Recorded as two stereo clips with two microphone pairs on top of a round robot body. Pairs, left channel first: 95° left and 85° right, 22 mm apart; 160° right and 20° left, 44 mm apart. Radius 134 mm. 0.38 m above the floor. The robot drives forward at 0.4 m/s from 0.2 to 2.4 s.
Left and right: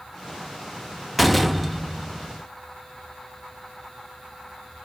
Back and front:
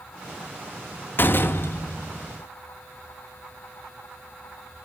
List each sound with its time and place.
1.2 s a door slam: 175° left, 0.8 m